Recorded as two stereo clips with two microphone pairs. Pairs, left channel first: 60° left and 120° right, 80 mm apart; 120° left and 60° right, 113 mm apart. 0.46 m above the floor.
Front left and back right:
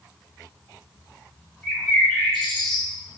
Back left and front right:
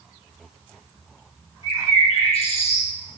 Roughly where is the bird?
Behind left.